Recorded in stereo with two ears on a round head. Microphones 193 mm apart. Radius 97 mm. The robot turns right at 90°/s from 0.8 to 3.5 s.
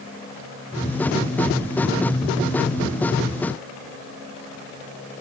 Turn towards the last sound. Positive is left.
No sound to turn to.